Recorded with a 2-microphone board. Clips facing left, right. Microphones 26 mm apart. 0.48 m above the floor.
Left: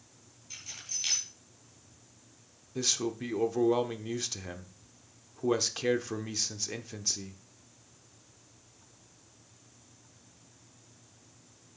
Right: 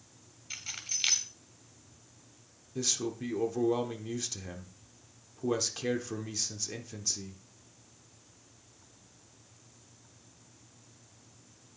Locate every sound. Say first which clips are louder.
0.5 s keys jangling: right 3 dB; 40° right (ahead or behind), 2.5 m
2.8 s a man speaking: left 2 dB; 20° left (ahead or behind), 1.0 m